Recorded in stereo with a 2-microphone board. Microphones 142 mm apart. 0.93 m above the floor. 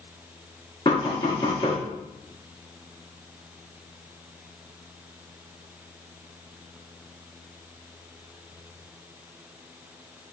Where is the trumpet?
No trumpet in this recording.